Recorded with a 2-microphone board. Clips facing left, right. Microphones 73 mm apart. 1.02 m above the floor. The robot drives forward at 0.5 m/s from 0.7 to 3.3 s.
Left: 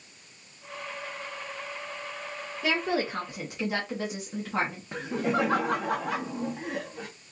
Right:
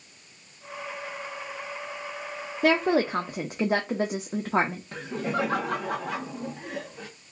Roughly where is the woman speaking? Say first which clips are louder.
Right 6 dB; right.